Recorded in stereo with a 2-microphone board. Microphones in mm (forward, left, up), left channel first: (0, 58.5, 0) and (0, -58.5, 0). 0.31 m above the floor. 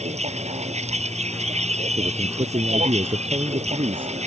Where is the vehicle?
80° right.